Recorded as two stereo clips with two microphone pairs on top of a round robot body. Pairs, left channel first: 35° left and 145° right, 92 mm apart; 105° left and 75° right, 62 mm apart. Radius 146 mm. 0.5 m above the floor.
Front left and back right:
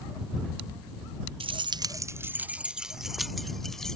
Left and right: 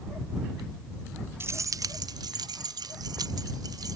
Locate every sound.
1.4 s keys jangling: 130° right; by 4.0 s 50° right